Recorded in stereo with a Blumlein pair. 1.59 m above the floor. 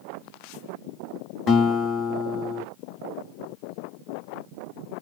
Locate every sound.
1.5 s a guitar: 25° left, 1.0 m